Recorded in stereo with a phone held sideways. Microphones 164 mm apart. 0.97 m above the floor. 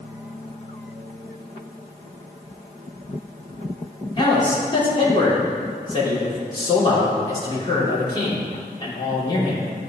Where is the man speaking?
30° left (ahead or behind), 3 m.